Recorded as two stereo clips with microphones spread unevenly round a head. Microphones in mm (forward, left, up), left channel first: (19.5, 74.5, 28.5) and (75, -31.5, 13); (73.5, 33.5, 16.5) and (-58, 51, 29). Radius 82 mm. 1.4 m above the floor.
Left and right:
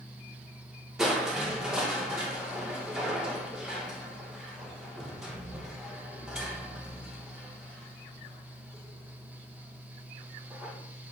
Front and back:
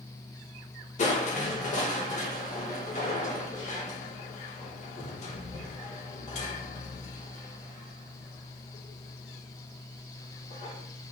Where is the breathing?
I don't hear breathing.